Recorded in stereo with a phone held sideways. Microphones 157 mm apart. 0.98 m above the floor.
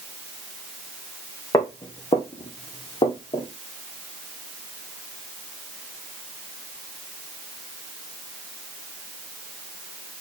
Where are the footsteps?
20° left (ahead or behind), 1.0 m; by 3.5 s 40° left (ahead or behind), 1.7 m.